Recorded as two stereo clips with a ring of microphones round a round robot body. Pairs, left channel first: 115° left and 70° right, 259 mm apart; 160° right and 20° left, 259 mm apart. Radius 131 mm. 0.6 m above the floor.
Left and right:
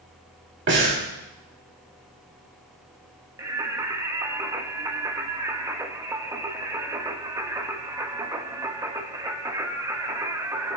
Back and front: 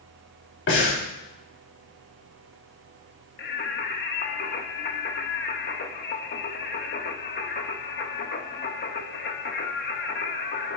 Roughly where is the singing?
Behind right.